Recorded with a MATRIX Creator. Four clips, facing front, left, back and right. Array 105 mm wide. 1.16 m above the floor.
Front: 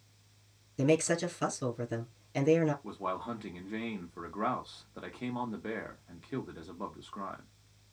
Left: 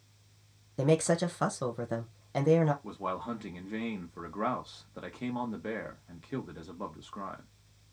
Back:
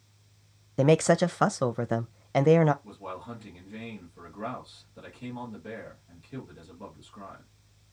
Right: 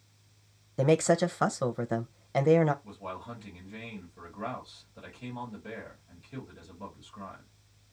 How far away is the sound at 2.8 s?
About 1.3 m.